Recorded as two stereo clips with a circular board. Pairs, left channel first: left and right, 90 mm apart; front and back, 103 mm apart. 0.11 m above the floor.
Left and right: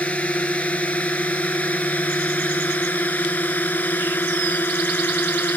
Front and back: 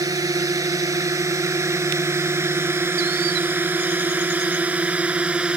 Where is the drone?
155° left; by 5.6 s 115° left.